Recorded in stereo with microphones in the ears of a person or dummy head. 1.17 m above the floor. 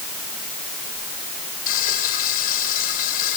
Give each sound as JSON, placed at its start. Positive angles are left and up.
{"t": 1.7, "sound": "frying", "side_deg": 55, "distance_m": 2.0}